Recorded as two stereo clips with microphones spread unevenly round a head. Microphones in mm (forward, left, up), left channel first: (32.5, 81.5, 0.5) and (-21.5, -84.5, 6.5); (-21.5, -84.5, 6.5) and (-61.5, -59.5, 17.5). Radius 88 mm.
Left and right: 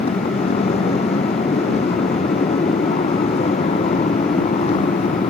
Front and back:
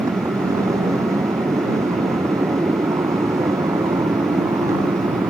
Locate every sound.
0.0 s a motorcycle: 130° left